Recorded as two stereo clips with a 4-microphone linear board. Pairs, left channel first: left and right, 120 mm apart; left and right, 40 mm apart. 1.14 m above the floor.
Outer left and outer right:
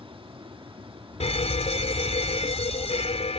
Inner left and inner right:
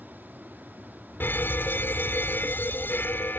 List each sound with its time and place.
0.0 s an aircraft: 50° right (ahead or behind)
1.2 s a fire alarm: 55° left (ahead or behind)